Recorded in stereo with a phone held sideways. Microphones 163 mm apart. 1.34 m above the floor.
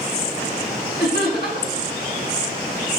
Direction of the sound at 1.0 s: 85° left.